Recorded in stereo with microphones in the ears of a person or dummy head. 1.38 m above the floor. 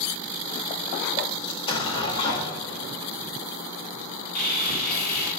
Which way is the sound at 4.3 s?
50° left (ahead or behind).